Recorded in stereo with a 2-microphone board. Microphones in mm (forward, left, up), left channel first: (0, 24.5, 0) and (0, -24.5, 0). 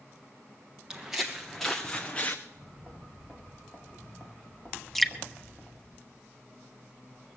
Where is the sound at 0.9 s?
10° right (ahead or behind), 1.3 m; by 2.4 s 25° left (ahead or behind), 1.1 m.